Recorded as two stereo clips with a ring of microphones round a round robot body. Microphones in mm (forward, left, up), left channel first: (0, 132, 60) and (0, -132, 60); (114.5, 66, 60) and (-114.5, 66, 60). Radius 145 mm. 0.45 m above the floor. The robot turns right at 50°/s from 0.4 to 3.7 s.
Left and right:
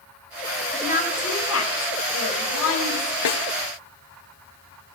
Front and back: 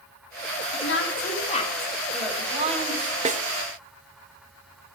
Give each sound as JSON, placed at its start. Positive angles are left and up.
{"t": 0.7, "sound": "a woman speaking", "azimuth_deg": 20, "distance_m": 2.5}
{"t": 3.2, "sound": "a snare drum", "azimuth_deg": 120, "distance_m": 1.0}